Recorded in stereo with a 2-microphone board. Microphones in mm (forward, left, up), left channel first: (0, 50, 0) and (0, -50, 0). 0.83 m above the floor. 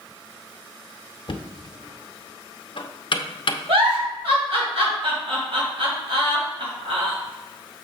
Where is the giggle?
80° right, 2.5 m.